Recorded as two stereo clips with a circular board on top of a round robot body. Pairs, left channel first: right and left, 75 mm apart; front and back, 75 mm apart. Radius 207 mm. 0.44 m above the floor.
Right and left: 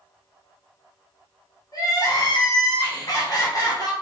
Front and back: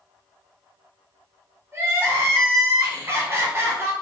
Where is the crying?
125° right, 1.8 m.